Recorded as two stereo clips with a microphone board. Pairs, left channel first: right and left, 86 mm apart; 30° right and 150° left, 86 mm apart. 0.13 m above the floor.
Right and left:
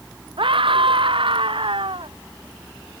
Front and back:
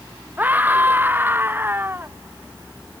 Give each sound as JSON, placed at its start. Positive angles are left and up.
{"t": 0.4, "sound": "a scream", "azimuth_deg": 80}